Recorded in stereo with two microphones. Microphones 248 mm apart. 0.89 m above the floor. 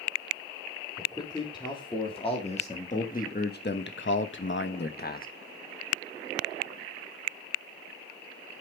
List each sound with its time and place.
1.0 s a man speaking: 15° left (ahead or behind), 3 m; by 5.3 s 35° left (ahead or behind), 1.2 m